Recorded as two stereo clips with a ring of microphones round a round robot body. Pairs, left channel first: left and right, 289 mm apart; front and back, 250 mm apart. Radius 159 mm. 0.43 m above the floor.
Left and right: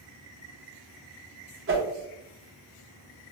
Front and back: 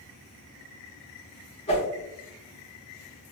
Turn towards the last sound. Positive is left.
turn(degrees=-60)